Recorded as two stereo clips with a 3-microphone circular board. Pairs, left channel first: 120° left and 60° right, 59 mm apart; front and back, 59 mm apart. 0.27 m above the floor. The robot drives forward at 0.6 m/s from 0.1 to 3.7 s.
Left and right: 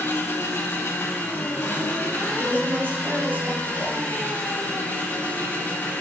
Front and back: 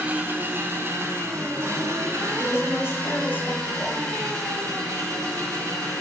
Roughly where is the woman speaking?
Ahead.